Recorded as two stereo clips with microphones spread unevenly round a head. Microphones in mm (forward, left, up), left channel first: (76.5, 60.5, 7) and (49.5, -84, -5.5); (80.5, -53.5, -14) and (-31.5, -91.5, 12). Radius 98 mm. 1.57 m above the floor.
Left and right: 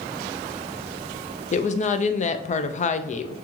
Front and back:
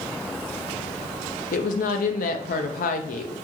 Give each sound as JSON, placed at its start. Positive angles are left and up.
{"t": 1.5, "sound": "a woman speaking", "azimuth_deg": 35, "distance_m": 0.5}